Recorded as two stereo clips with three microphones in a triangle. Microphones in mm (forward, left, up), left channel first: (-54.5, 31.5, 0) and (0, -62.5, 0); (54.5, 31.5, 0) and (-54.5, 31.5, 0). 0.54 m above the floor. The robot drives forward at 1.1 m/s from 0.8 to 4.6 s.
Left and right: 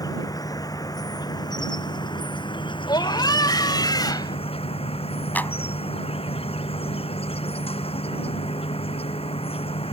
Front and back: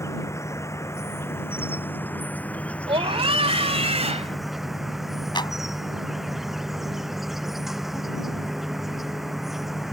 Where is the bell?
I don't hear a bell.